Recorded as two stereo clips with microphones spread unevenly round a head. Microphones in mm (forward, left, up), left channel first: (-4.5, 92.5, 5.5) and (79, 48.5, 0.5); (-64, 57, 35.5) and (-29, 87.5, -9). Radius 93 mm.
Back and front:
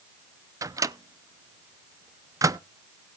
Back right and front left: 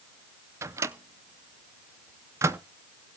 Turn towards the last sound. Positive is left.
turn(degrees=30)